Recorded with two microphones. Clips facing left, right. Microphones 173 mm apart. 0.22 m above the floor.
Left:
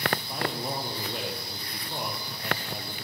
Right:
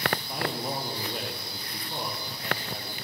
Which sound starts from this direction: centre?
A man speaking, at 0.2 s.